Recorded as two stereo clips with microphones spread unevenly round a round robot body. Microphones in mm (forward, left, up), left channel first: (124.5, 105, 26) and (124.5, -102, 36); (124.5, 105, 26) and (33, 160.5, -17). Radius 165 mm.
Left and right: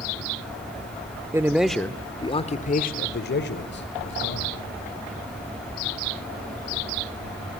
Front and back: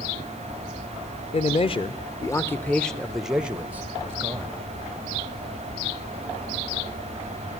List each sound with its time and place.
1.3 s a man speaking: 15° right, 1.0 m; by 4.6 s 95° left, 2 m